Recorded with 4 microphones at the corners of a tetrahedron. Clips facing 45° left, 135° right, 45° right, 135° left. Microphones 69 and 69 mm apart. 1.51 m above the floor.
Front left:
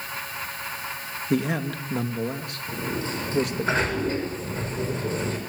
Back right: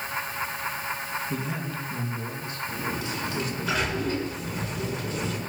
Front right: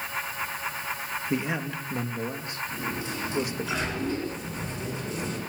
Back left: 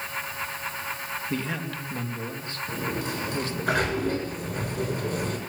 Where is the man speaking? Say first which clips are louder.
Front left 6 dB, front right 3 dB; 25° left, 3 m.